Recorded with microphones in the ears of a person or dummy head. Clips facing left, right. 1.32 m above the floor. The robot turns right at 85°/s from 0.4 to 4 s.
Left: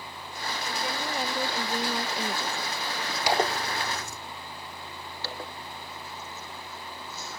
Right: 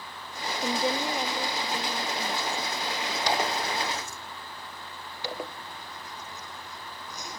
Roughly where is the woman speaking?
Ahead right.